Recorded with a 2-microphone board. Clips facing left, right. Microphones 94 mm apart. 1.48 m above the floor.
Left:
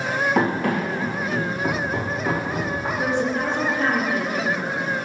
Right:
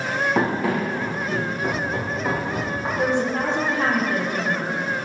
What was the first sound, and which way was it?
Running footsteps, 5° right (ahead or behind).